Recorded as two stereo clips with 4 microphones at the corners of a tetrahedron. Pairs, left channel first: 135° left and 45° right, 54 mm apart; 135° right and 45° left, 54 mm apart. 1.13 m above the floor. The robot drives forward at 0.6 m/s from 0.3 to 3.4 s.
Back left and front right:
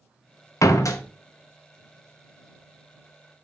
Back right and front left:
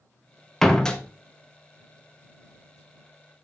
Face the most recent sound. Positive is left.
turn(degrees=170)